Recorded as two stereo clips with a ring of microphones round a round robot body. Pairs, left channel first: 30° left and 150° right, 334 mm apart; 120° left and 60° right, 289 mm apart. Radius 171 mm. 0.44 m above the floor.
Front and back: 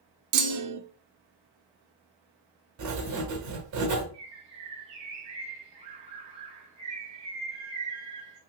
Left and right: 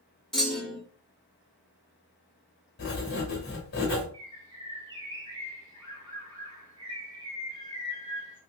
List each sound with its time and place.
0.3 s a clunk: 150° right, 0.5 m
2.8 s writing: 175° left, 1.3 m
4.1 s a bird: 85° right, 2 m